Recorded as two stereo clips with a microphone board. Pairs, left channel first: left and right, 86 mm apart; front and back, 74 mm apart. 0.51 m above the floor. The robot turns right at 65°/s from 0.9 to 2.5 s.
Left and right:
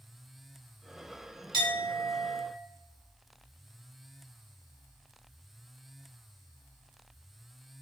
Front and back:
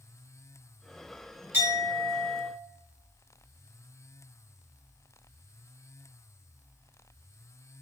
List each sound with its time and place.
1.5 s a clink: 125° right, 1.7 m; by 2.4 s 65° right, 1.7 m